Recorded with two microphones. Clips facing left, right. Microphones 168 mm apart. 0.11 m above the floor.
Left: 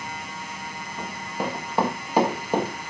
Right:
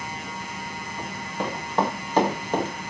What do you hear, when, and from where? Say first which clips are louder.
1.0 s running footsteps: left 1 dB; 10° left (ahead or behind), 7.5 m